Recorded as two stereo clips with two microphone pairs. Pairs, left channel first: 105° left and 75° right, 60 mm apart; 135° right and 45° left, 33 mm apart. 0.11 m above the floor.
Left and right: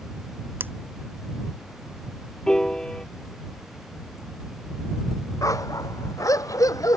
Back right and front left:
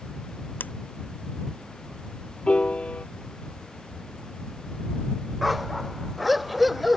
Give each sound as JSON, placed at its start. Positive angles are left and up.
{"t": 0.6, "sound": "scissors", "azimuth_deg": -130}
{"t": 2.5, "sound": "a piano", "azimuth_deg": 180}
{"t": 5.4, "sound": "a dog barking", "azimuth_deg": 130}